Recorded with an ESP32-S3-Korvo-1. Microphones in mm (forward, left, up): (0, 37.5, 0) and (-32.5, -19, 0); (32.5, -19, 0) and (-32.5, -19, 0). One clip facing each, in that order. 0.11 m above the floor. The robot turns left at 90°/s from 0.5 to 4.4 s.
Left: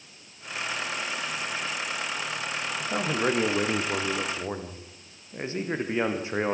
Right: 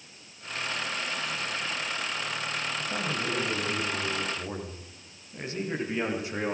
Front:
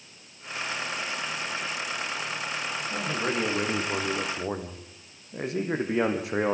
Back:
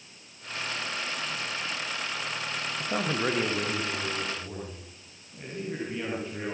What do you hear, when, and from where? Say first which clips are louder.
2.8 s a man speaking: left 9 dB, back 3 dB; 140° left, 4.5 m; by 6.5 s straight ahead, 4.5 m